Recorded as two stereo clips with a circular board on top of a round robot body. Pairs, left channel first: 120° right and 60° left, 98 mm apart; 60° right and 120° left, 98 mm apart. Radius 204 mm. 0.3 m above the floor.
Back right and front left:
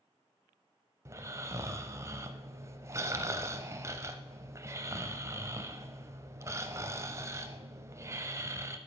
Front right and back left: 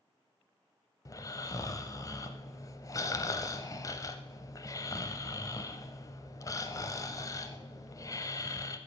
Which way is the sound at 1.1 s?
5° right.